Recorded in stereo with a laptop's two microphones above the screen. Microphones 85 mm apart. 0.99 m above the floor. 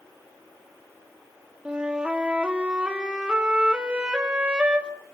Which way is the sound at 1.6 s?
10° right (ahead or behind).